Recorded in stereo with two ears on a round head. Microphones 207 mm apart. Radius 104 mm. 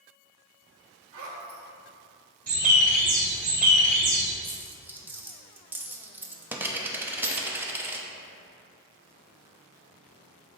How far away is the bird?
About 2 m.